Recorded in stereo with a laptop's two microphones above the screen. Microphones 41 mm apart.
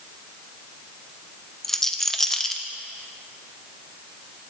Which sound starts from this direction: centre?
A rattle, at 1.6 s.